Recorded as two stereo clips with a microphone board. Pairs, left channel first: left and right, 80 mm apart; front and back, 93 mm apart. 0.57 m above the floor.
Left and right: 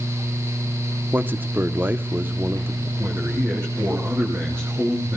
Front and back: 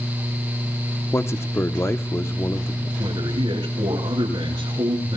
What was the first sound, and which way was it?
A man speaking, 40° right.